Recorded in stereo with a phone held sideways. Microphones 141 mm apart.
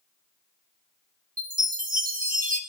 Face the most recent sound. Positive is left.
turn(degrees=-80)